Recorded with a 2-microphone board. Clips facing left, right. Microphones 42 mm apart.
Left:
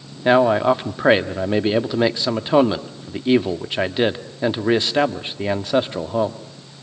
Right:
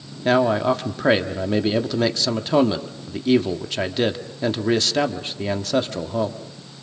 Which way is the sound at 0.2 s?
20° left (ahead or behind).